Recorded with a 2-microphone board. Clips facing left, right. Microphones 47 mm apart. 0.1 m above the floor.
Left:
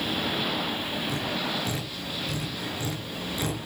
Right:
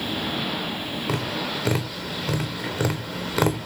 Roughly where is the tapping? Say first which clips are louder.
Right 5 dB; right.